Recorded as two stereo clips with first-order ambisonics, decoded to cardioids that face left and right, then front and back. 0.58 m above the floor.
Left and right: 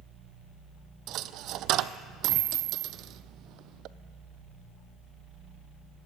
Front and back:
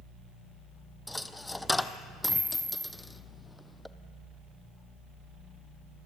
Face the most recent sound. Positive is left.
turn(degrees=-80)